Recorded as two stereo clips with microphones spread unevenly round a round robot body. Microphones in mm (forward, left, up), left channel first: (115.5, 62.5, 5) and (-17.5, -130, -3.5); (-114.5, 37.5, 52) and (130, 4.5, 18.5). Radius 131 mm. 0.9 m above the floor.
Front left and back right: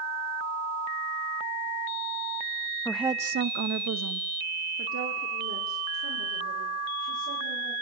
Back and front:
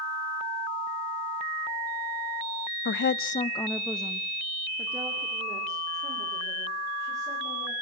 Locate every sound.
2.9 s a woman speaking: 135° left, 0.6 m; by 7.7 s 85° right, 5.5 m